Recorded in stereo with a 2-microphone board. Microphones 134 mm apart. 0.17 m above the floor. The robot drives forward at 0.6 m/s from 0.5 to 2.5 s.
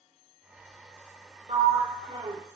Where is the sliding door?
45° right (ahead or behind), 1.2 m; by 2.4 s 30° right (ahead or behind), 1.6 m.